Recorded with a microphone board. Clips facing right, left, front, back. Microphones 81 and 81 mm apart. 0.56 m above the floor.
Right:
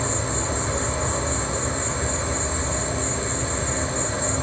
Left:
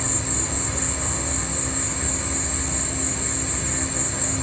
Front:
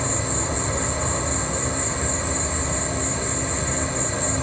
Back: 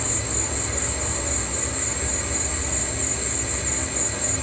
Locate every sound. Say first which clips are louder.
0.0 s an insect: right 3 dB, front 4 dB; 50° right, 1.0 m